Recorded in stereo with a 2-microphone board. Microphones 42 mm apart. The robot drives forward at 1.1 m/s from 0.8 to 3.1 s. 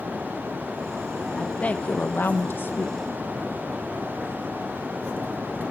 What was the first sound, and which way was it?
A woman speaking, 25° left (ahead or behind).